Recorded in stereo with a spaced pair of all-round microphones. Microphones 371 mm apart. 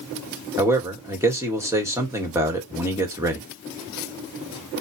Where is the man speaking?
5° right (ahead or behind), 1.6 m.